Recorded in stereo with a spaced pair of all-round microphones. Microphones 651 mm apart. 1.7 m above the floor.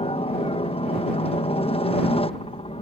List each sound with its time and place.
0.0 s a helicopter: 10° left (ahead or behind)